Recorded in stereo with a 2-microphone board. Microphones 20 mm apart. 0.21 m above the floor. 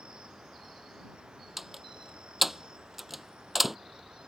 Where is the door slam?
10° right (ahead or behind).